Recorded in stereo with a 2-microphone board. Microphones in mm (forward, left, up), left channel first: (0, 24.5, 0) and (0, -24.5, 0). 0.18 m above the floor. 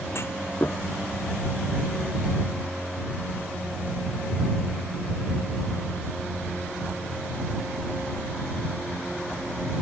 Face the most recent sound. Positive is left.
turn(degrees=55)  # may be behind; listen again after turning